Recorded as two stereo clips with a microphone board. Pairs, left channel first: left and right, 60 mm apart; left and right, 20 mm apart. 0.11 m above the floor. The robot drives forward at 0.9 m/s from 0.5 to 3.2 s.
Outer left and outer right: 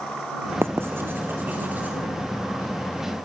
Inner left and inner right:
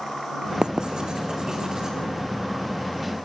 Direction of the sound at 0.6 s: 45° right (ahead or behind).